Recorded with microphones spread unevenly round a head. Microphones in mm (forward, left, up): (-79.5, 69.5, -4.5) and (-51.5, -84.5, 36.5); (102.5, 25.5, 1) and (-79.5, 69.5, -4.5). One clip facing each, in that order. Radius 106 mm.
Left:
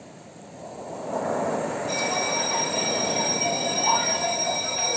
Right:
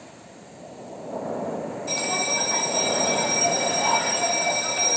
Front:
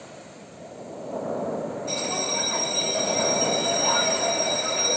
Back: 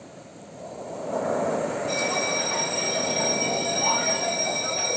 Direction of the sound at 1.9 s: 75° right.